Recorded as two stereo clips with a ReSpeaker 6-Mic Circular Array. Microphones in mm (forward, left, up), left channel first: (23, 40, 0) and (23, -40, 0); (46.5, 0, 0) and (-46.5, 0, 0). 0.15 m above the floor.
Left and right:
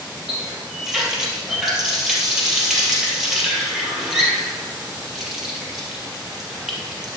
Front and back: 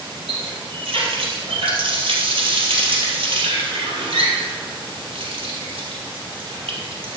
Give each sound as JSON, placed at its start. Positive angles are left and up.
{"t": 0.3, "sound": "a running tap", "azimuth_deg": -175, "distance_m": 2.5}